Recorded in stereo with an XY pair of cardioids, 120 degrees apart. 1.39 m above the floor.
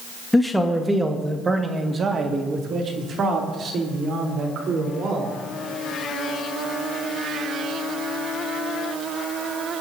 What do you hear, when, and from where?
0.3 s a man speaking: 5° left, 1.3 m; by 5.3 s 60° right, 4 m